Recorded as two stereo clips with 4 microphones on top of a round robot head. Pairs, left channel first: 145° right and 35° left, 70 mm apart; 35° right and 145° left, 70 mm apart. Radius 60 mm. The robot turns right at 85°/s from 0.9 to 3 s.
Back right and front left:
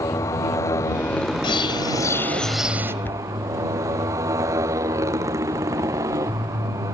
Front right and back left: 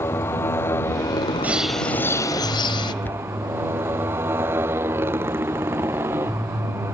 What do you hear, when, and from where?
0.0 s a motorcycle: 95° right; by 6.9 s 85° left
1.4 s a bird: 145° right; by 2.9 s 20° right
3.0 s a cupboard door: 90° right